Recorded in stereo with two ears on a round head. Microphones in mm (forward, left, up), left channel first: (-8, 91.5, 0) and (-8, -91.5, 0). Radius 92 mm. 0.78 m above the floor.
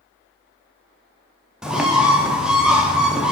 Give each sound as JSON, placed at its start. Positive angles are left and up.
{"t": 1.6, "sound": "a bird", "side_deg": -5, "distance_m": 0.5}